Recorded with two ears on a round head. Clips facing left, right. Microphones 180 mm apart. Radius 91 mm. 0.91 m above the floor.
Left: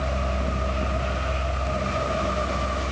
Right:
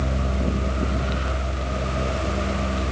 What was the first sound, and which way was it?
Only background noise.